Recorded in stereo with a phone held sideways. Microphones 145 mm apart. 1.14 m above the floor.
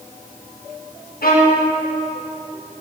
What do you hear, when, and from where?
1.2 s a violin: 85° left, 1.1 m